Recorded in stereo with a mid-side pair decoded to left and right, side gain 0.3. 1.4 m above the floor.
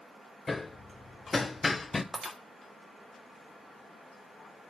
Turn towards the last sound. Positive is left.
turn(degrees=-30)